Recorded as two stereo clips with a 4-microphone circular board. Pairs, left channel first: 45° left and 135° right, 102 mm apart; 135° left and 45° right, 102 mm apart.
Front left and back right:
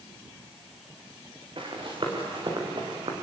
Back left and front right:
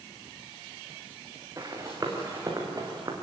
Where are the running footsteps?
100° right, 6 m; by 3.1 s 95° right, 5 m.